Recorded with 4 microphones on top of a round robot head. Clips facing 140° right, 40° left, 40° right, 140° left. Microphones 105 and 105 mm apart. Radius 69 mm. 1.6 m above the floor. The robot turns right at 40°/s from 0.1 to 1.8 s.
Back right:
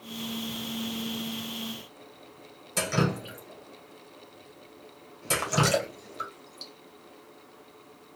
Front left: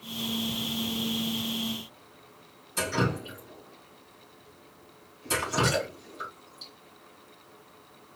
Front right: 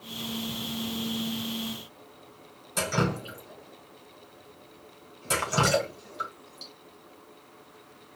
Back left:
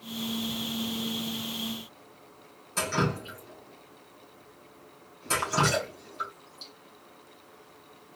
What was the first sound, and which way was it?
Dripping, 120° right.